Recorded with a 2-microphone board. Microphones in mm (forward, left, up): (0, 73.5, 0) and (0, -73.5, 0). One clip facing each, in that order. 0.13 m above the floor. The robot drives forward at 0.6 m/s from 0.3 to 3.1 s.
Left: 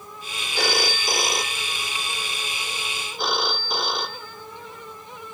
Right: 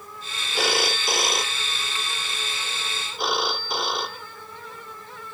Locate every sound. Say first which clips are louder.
0.6 s a phone ringing: even; centre (ahead or behind)